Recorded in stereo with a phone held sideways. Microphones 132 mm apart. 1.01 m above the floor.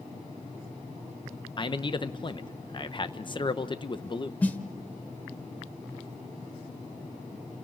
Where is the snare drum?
10° left (ahead or behind), 0.8 m.